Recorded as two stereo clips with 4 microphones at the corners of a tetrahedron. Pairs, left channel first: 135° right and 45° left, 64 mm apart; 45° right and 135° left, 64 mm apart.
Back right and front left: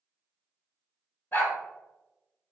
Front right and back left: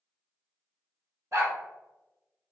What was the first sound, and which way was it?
A dog barking, 175° left.